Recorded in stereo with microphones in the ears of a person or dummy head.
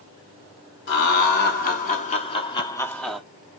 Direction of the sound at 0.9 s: 55° left (ahead or behind).